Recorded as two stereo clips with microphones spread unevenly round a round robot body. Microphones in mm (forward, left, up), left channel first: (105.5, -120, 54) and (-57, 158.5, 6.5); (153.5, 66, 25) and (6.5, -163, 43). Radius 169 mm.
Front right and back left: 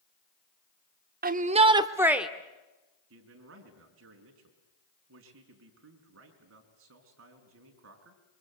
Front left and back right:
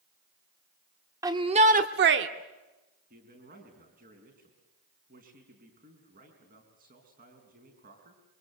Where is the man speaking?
170° left, 4.5 m.